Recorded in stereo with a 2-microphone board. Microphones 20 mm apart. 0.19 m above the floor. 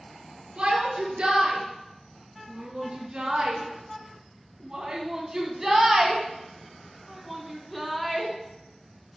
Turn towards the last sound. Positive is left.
turn(degrees=10)  # may be behind; listen again after turning